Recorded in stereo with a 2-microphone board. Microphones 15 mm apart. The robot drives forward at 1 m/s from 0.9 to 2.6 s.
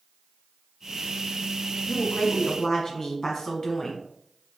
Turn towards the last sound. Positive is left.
turn(degrees=20)  # may be behind; listen again after turning